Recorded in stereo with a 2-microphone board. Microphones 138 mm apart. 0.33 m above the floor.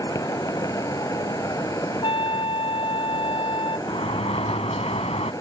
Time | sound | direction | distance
0.0 | an insect | 25° left (ahead or behind) | ?
2.0 | a trumpet | 40° left (ahead or behind) | ?
3.9 | a sliding door | 50° left (ahead or behind) | ?